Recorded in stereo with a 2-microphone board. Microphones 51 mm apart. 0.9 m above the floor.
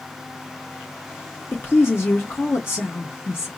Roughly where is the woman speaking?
Left.